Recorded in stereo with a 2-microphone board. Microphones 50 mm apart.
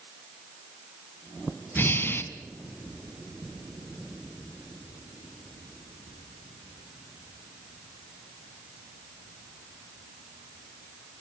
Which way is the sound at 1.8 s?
45° left (ahead or behind).